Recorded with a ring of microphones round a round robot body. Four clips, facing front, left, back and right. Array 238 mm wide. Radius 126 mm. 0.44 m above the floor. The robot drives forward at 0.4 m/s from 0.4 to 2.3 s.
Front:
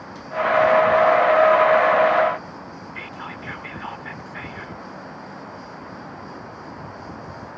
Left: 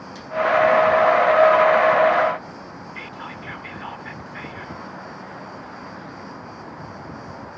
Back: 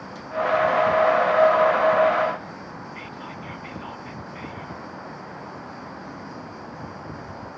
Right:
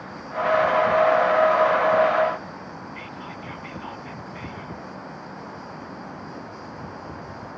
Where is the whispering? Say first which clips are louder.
Left 1 dB, front 2 dB; 35° left.